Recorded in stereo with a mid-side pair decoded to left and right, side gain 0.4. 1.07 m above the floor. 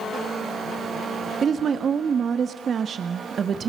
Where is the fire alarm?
No fire alarm in this recording.